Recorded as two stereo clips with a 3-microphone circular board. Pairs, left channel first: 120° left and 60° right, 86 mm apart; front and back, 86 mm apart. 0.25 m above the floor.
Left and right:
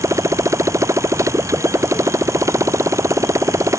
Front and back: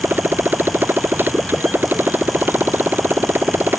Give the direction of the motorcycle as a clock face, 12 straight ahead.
4 o'clock.